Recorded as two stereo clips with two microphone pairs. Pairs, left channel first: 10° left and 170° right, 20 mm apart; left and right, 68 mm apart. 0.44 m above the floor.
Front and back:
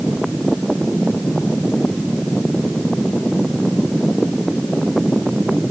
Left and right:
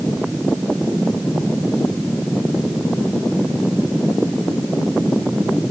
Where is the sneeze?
No sneeze in this recording.